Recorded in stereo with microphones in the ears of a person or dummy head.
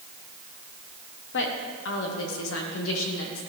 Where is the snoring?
No snoring in this recording.